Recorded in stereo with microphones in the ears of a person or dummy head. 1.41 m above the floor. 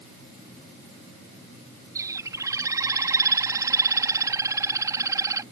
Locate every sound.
1.9 s a bird: 20° right (ahead or behind)